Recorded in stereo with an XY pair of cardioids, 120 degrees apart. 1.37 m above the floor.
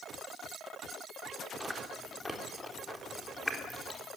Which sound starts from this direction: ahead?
Chewing, at 1.6 s.